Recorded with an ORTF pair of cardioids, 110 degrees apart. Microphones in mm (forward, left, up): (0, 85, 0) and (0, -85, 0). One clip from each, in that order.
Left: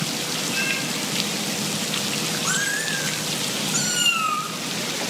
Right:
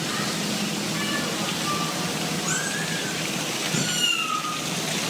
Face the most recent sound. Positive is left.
turn(degrees=60)